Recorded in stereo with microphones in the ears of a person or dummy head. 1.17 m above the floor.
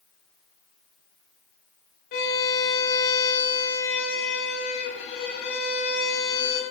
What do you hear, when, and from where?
2.1 s a violin: 60° left (ahead or behind), 0.6 m